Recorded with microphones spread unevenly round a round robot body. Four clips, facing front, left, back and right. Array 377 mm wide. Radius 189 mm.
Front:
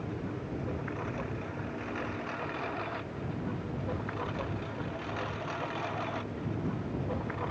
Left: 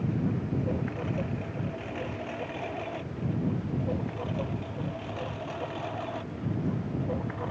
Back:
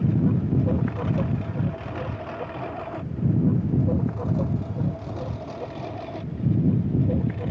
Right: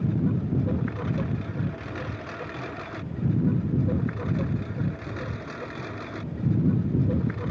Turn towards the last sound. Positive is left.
turn(degrees=-145)